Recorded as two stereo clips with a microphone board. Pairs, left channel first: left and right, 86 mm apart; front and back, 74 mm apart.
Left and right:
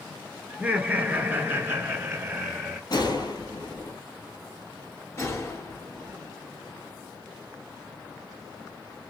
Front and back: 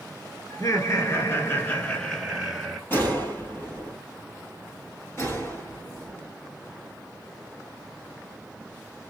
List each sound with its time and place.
0.5 s laughter: 20° right, 1.7 m; by 2.8 s 105° right, 1.3 m
2.9 s a gunshot: 60° left, 1.8 m
5.2 s a gunshot: 45° left, 2.5 m